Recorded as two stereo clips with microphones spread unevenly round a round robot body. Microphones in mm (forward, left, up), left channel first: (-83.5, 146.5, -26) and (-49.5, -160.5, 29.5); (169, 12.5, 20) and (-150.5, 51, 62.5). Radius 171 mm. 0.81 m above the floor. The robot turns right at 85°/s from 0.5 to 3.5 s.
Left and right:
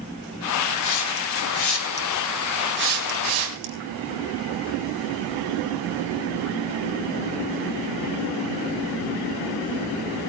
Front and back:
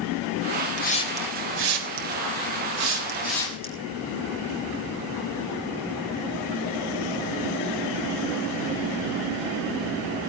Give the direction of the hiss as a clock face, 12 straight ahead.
10 o'clock.